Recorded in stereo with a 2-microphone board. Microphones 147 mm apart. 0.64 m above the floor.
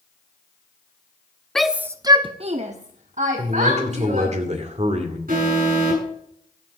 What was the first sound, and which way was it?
A shout, 5° left (ahead or behind).